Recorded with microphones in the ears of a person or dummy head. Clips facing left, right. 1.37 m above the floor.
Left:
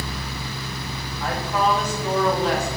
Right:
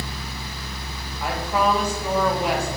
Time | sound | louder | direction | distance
1.2 | a woman speaking | right 1 dB | 15° right (ahead or behind) | 1.7 m